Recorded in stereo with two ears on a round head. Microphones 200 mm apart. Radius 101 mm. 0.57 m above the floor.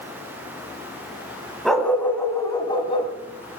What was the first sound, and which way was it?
A dog barking, centre (ahead or behind).